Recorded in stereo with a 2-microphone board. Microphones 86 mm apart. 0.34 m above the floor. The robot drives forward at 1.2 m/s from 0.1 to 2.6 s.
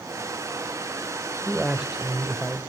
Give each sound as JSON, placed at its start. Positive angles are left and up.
{"t": 1.4, "sound": "a man speaking", "side_deg": -5, "distance_m": 0.9}